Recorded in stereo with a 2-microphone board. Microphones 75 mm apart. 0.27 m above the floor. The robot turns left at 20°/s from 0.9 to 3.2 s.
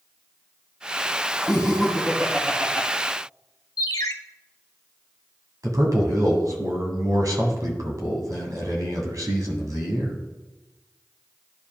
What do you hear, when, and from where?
1.5 s laughter: 5° left (ahead or behind), 2.5 m; by 2.9 s 20° right (ahead or behind), 2.5 m
3.8 s a ringtone: 55° left (ahead or behind), 0.6 m
5.6 s a man speaking: 55° right (ahead or behind), 1.9 m